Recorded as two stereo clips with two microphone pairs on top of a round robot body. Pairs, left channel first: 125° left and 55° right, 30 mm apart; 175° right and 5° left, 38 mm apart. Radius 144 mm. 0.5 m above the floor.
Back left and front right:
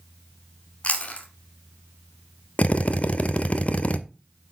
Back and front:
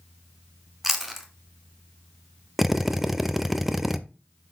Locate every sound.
0.8 s chewing: 85° left, 1.1 m
2.6 s a drill: 100° left, 1.0 m